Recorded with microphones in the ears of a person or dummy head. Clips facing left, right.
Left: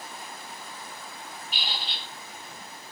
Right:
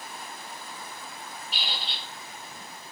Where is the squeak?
40° right (ahead or behind), 2 m.